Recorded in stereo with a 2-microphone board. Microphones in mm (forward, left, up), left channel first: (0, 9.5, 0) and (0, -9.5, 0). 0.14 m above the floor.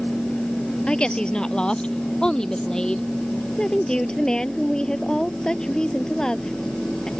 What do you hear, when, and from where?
0.9 s a woman speaking: 50° left (ahead or behind); by 3.1 s 35° left (ahead or behind)
3.6 s a woman speaking: 35° left (ahead or behind)